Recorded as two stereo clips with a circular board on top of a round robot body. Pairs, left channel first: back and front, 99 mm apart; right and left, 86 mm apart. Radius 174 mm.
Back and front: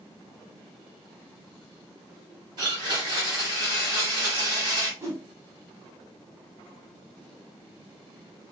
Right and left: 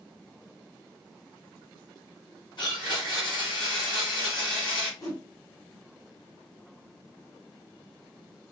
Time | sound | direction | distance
2.6 | a blender | 50° right | 1.2 m
5.0 | a whoosh | 50° right | 1.6 m